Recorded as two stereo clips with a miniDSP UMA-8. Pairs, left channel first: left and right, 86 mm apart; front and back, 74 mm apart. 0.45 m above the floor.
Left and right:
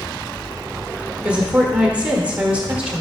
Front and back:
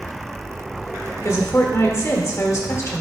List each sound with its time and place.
1.2 s a woman speaking: 20° right, 1.2 m